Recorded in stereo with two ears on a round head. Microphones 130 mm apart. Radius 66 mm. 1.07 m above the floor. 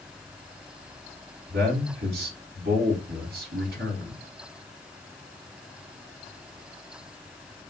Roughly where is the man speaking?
Right.